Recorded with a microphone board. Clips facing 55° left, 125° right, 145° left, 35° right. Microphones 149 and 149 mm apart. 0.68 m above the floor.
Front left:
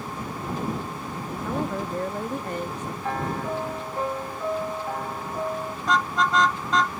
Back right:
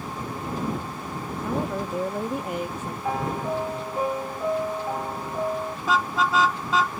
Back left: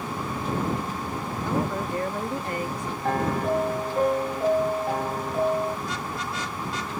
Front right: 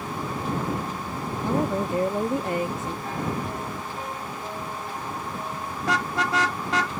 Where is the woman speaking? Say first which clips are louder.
Back right 1 dB, front right 3 dB; 55° right.